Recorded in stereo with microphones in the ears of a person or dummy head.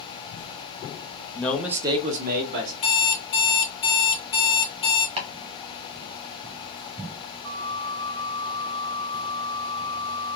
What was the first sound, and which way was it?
A man speaking, 10° left (ahead or behind).